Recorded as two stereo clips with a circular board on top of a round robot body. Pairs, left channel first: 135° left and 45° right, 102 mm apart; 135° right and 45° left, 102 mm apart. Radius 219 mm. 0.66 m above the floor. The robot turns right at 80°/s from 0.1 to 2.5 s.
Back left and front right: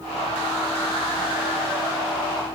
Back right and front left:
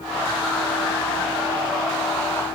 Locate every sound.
Only background noise.